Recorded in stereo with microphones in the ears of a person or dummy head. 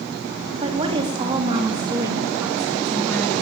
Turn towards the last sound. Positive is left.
turn(degrees=5)  # may be behind; listen again after turning